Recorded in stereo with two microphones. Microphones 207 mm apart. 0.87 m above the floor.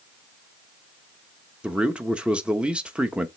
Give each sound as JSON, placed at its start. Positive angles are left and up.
{"t": 1.6, "sound": "a man speaking", "side_deg": -5, "distance_m": 1.2}